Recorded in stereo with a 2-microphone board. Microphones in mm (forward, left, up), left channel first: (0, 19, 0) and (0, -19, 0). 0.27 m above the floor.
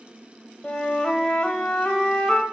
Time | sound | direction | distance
0.6 | a flute | 20° left (ahead or behind) | 1.0 m